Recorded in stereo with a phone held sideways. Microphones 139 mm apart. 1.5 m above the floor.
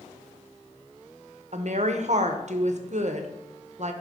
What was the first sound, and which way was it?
A woman speaking, 60° right (ahead or behind).